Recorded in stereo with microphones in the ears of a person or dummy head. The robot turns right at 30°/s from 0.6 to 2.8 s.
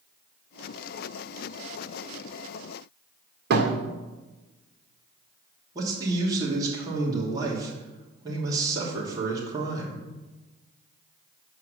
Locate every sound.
3.5 s a thud: 60° right (ahead or behind), 1.9 m
5.8 s a man speaking: 25° right (ahead or behind), 2.5 m